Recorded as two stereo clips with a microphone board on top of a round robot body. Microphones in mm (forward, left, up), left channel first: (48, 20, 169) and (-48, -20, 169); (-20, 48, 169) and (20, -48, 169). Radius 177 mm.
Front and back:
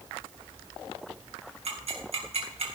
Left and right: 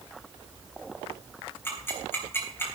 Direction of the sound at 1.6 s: Straight behind.